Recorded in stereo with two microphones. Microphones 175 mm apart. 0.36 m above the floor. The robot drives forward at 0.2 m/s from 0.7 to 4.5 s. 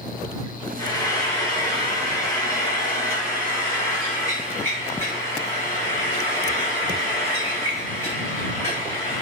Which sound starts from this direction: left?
Frying, at 0.8 s.